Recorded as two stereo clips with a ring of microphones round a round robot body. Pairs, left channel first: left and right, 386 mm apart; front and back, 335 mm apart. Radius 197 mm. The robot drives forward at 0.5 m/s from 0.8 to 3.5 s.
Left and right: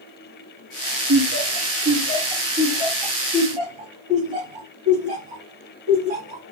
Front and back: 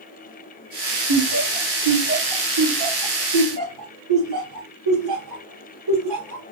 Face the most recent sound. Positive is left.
turn(degrees=-160)